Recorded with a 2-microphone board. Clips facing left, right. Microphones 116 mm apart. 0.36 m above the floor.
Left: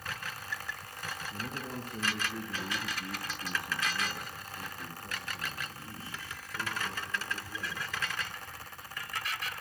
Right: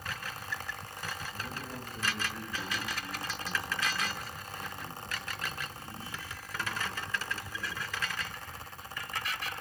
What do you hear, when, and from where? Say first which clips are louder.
1.3 s a man speaking: left 2 dB; 75° left (ahead or behind), 5 m; by 7.9 s 35° left (ahead or behind), 12.5 m